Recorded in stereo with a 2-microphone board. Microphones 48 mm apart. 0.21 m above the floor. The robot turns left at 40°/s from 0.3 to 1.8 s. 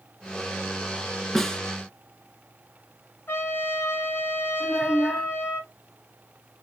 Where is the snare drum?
5° left (ahead or behind), 0.8 m; by 1.6 s 15° left (ahead or behind), 0.8 m.